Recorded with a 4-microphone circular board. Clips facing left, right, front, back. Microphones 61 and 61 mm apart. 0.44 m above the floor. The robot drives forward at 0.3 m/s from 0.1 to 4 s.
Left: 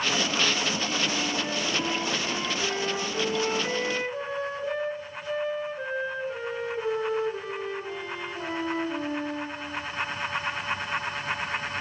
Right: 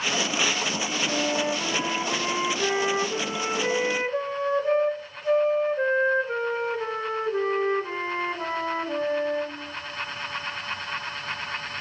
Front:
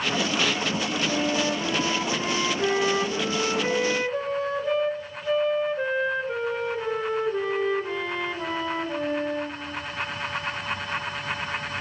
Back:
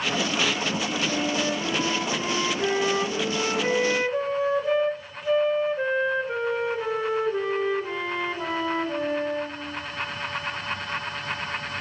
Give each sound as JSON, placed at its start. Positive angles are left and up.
{"t": 1.1, "sound": "a flute", "azimuth_deg": -55, "distance_m": 1.5}